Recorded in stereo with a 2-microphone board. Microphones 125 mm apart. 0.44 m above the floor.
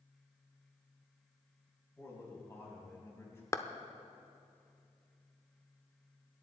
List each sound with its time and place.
2.0 s a man speaking: 20° left (ahead or behind), 4 m
3.5 s a clap: 25° left (ahead or behind), 0.7 m